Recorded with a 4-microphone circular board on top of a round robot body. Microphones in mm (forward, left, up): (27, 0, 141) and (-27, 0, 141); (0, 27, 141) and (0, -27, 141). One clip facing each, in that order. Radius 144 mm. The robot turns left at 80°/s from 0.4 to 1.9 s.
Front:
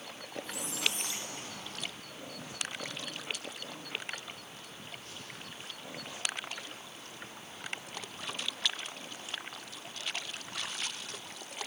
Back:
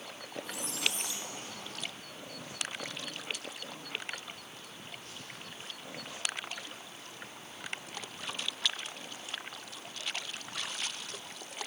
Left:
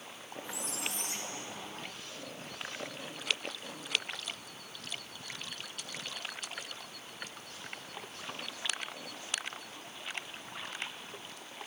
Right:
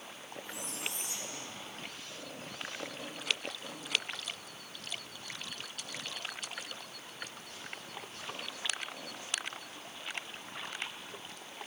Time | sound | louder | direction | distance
0.4 | a squeak | even, left 2 dB | 95° left | 0.8 m